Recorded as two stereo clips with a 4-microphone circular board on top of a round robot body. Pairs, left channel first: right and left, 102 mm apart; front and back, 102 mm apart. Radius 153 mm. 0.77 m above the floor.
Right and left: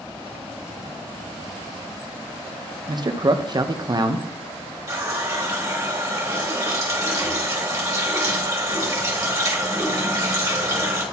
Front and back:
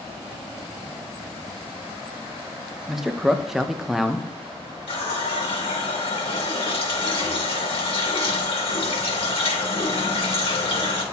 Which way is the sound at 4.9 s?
30° left.